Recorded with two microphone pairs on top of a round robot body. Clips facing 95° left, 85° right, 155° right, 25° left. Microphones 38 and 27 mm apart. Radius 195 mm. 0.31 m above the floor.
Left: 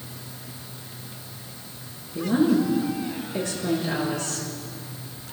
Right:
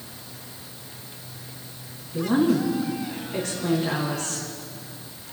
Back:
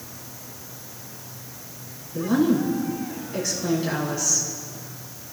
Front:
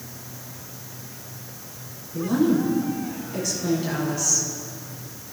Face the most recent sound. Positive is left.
turn(degrees=-75)